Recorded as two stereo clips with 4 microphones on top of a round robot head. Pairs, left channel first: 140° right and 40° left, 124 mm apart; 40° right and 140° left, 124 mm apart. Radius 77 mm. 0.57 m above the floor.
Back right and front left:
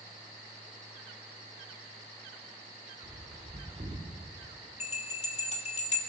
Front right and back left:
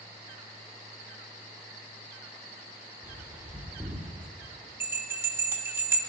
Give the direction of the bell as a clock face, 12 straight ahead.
5 o'clock.